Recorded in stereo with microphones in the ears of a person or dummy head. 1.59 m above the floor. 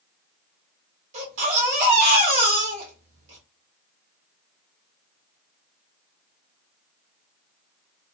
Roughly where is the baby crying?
Right.